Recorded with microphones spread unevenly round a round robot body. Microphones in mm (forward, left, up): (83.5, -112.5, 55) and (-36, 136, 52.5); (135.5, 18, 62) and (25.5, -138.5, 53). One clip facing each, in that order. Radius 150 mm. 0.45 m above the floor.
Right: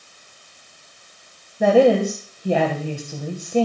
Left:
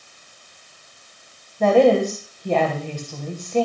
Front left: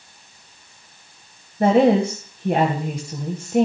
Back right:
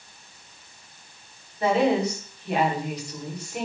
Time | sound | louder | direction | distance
1.6 | a woman speaking | even, front left 6 dB | 15° left | 3 m